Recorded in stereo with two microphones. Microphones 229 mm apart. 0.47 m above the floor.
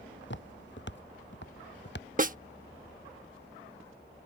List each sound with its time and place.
0.2 s footsteps: 60° left (ahead or behind); by 2.1 s 55° left (ahead or behind)
2.2 s a snare drum: 40° right (ahead or behind)